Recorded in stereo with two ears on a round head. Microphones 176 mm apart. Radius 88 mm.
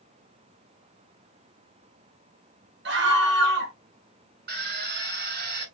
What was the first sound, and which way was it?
A scream, 65° right (ahead or behind).